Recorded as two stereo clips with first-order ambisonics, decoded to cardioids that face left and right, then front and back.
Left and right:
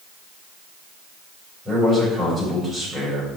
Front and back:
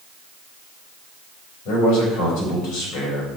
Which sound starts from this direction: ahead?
A man speaking, at 1.6 s.